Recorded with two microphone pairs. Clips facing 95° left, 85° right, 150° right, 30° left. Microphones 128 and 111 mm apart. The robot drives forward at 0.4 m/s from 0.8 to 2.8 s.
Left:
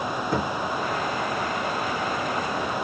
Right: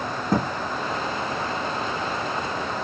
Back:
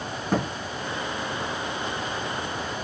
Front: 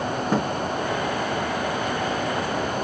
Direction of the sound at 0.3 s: 45° right.